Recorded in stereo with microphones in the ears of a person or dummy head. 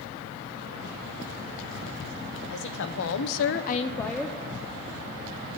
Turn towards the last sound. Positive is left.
turn(degrees=-5)  # may be behind; listen again after turning